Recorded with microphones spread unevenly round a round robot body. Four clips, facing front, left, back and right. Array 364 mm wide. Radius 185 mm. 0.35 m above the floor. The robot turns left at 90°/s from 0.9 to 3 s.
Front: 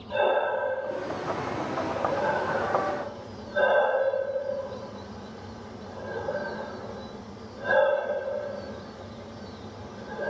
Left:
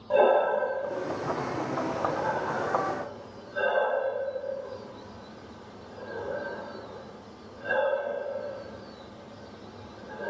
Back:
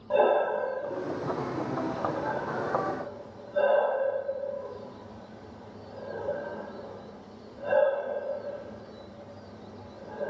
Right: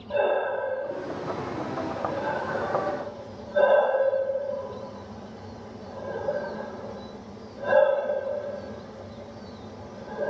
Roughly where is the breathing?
Behind left.